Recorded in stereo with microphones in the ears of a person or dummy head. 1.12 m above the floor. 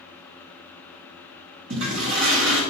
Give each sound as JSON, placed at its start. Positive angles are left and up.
{"t": 1.7, "sound": "a toilet flushing", "side_deg": -65, "distance_m": 2.0}